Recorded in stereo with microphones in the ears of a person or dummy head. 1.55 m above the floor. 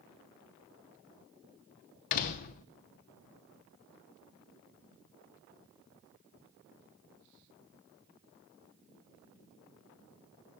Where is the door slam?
40° left (ahead or behind), 0.6 m.